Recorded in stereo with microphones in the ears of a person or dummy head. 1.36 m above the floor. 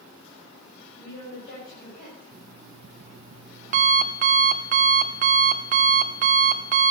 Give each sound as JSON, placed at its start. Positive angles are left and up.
{"t": 1.0, "sound": "a woman speaking", "side_deg": 50, "distance_m": 7.5}
{"t": 2.3, "sound": "an alarm clock", "side_deg": -40, "distance_m": 0.8}